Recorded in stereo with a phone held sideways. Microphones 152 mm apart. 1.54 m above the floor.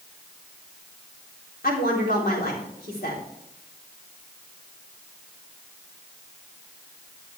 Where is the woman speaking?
85° left, 3.5 m.